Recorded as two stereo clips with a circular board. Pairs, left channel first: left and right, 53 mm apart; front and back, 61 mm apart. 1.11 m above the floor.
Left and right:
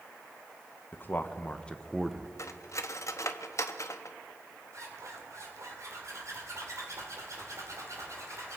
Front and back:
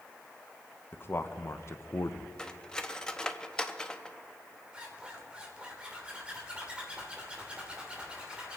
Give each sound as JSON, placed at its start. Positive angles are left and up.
{"t": 0.9, "sound": "a man speaking", "azimuth_deg": 45, "distance_m": 1.0}
{"t": 2.4, "sound": "cutlery clinking", "azimuth_deg": 75, "distance_m": 0.8}
{"t": 4.7, "sound": "a zipper", "azimuth_deg": -110, "distance_m": 2.5}